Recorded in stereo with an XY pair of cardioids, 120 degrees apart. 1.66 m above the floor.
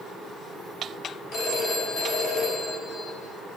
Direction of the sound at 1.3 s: 55° left.